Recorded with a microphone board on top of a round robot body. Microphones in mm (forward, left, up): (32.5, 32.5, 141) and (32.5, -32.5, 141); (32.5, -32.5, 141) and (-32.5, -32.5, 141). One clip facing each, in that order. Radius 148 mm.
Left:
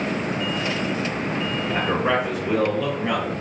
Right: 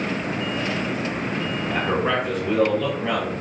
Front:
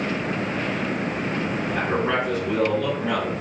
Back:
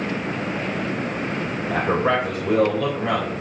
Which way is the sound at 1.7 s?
170° left.